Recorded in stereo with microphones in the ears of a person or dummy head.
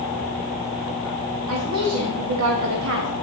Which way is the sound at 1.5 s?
80° right.